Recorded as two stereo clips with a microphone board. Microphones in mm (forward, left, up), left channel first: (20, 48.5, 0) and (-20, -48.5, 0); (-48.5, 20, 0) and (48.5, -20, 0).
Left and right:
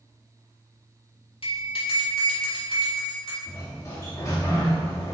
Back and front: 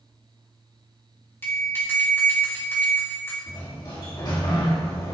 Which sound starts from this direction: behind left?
A sliding door, at 3.5 s.